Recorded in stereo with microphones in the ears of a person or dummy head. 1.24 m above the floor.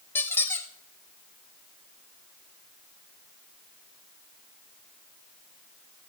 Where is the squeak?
20° left (ahead or behind), 1.4 m.